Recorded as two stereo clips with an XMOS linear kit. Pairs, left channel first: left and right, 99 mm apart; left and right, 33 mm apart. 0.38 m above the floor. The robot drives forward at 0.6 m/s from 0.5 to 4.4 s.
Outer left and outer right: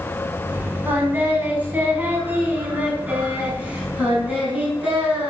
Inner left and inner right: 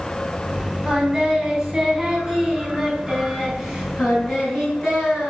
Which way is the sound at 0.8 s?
20° right (ahead or behind).